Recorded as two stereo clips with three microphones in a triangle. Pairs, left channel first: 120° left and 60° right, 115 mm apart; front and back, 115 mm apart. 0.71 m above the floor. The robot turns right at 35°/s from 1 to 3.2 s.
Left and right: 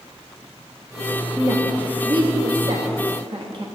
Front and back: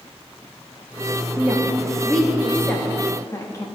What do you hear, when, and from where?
1.4 s a woman speaking: 115° right, 0.8 m; by 3.6 s 50° right, 0.8 m